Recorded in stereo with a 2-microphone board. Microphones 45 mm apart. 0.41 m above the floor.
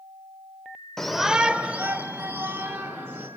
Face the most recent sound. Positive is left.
turn(degrees=-55)  # may be behind; listen again after turning